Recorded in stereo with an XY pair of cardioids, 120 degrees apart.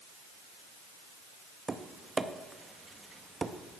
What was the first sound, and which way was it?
Tapping, 25° right.